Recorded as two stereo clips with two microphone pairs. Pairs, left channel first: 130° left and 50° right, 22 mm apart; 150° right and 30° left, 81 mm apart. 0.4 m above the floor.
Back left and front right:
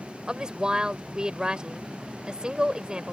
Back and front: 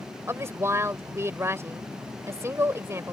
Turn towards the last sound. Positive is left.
turn(degrees=-10)